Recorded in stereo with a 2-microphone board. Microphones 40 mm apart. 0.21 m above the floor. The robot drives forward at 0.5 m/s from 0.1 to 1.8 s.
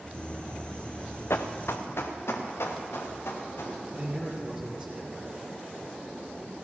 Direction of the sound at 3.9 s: 10° right (ahead or behind).